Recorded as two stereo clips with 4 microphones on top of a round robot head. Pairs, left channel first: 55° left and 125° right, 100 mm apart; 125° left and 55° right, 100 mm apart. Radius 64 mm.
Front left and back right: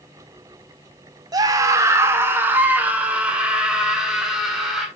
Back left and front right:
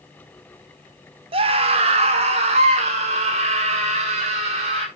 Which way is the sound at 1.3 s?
75° right.